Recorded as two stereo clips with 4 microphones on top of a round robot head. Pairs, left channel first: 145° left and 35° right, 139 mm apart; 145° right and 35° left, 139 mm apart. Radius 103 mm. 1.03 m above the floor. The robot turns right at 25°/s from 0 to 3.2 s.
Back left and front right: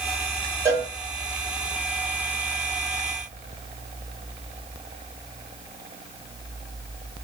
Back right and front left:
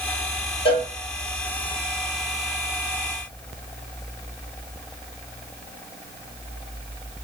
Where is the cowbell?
105° right, 1.2 m; by 0.9 s 95° right, 1.2 m.